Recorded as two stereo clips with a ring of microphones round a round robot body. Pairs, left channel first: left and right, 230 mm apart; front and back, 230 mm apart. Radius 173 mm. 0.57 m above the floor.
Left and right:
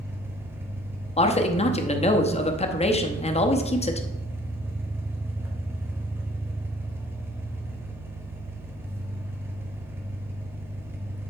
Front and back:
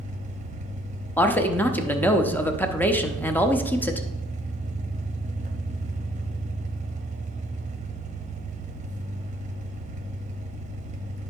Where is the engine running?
160° right, 0.9 m.